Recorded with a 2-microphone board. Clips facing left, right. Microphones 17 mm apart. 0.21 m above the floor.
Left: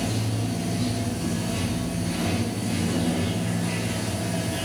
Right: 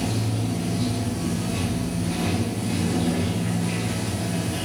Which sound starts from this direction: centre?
Running water, at 0.0 s.